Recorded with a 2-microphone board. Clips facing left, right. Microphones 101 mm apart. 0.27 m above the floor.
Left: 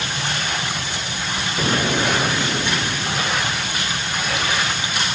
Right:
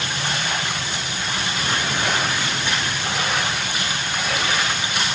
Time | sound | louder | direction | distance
1.6 | an explosion | left 6 dB | 70° left (ahead or behind) | 4 m